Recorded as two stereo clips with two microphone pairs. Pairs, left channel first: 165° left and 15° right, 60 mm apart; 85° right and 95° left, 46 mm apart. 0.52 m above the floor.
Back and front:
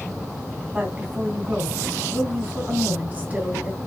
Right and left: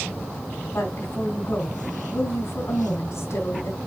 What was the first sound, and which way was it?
A woman speaking, 80° right.